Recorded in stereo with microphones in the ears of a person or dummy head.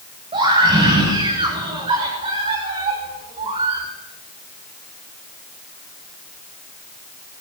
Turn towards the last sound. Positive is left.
turn(degrees=-35)  # may be behind; listen again after turning